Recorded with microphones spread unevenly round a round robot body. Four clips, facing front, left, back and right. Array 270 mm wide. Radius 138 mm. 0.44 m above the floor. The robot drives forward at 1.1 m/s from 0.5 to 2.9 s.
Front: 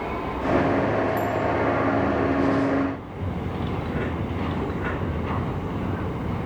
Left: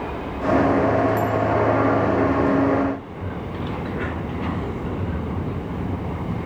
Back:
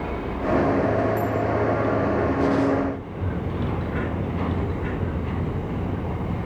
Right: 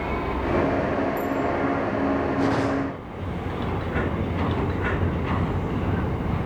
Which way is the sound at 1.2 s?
75° left.